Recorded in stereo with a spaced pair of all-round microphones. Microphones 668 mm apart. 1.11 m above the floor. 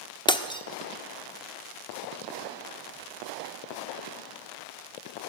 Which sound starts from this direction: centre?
Breaking glass, at 0.3 s.